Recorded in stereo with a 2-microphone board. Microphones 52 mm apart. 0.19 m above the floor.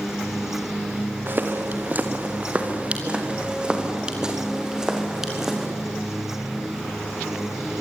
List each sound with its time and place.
1.3 s footsteps: 40° right (ahead or behind), 3 m; by 5.7 s 5° right (ahead or behind), 5 m